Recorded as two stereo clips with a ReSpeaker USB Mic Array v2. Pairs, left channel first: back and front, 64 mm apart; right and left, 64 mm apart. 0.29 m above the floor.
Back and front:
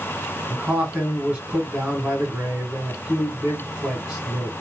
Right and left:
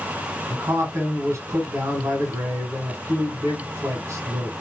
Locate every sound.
0.5 s a man speaking: 70° left, 1.8 m